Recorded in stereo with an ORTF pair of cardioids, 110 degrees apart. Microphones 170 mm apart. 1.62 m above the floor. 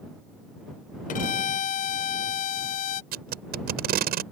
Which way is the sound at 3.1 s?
65° right.